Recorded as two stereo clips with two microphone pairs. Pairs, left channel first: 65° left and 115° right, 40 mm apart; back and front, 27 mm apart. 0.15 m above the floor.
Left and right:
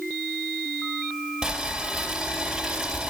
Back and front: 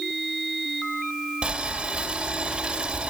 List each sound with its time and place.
1.4 s boiling: 45° right, 3 m